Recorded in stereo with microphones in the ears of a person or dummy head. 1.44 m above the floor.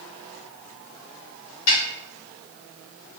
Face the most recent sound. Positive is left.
turn(degrees=70)  # may be behind; listen again after turning